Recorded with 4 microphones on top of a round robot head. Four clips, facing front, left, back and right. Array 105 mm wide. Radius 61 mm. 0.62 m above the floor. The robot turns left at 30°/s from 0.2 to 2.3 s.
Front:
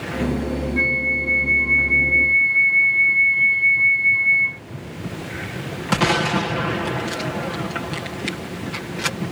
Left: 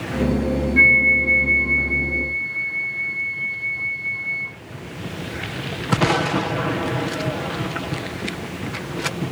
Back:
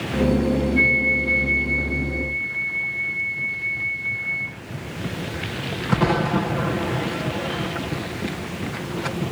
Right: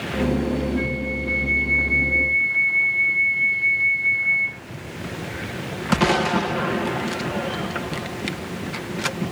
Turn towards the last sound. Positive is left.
turn(degrees=25)